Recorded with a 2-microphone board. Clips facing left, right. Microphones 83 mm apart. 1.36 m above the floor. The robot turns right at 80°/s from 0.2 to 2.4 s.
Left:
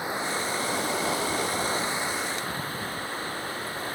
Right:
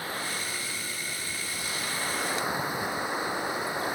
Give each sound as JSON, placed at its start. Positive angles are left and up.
{"t": 0.0, "sound": "running water", "azimuth_deg": 20}